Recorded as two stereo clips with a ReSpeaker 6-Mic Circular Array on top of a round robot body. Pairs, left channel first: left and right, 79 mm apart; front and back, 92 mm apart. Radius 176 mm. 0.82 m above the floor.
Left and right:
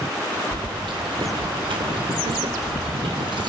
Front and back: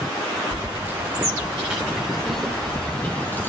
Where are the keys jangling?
120° right, 2.5 m; by 3.5 s 70° right, 2 m.